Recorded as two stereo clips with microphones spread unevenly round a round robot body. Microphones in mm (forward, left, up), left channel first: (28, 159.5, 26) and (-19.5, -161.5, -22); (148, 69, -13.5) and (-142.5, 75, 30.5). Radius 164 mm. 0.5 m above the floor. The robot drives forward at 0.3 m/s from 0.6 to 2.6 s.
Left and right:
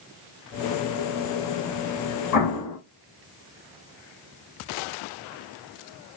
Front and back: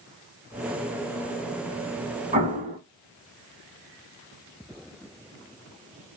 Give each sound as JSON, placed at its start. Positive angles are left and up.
{"t": 2.3, "sound": "an explosion", "azimuth_deg": 110, "distance_m": 1.5}